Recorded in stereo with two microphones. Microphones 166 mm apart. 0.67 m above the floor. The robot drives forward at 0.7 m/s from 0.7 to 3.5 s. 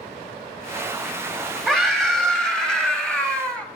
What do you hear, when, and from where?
1.7 s a scream: 5° left (ahead or behind), 1.9 m